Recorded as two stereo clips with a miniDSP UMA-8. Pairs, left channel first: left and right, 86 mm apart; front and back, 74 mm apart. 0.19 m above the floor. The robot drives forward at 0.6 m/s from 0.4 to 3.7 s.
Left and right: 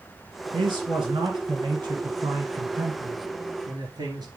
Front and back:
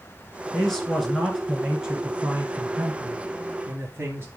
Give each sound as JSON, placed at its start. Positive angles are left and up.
{"t": 0.5, "sound": "a man speaking", "azimuth_deg": -80, "distance_m": 2.5}